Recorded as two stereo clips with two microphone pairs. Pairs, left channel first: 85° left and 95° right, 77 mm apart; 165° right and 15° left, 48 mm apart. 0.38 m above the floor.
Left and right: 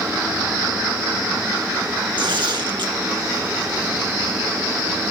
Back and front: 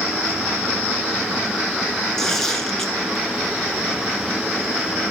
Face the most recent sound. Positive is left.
turn(degrees=-85)